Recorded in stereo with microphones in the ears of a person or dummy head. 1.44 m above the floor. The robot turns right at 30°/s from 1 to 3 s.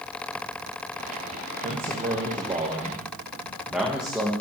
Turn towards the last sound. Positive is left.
turn(degrees=0)